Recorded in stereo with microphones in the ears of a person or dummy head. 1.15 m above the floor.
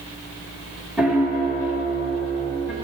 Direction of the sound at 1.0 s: 5° right (ahead or behind).